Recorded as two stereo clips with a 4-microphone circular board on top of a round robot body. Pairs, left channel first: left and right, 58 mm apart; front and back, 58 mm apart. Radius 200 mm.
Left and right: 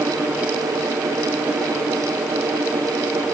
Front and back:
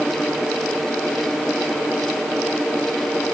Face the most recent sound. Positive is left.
No sound to turn to.